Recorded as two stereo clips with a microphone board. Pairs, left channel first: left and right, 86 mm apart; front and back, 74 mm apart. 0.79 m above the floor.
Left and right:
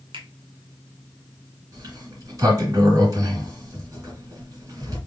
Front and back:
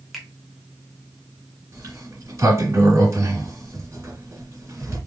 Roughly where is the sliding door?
Behind right.